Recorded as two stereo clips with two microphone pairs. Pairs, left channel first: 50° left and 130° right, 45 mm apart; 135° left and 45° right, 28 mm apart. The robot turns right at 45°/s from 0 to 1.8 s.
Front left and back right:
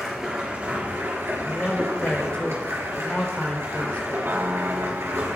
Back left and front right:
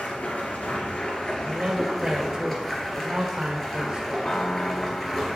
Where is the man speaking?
15° right, 1.7 m; by 4.3 s straight ahead, 1.7 m.